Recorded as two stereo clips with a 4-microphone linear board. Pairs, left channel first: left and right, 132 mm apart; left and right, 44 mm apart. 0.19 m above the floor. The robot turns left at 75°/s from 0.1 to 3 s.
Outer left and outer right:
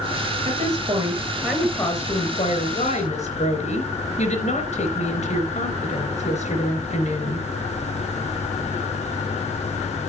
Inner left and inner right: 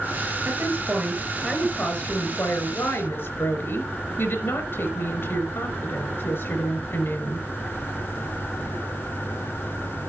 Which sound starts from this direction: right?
A woman speaking, at 0.5 s.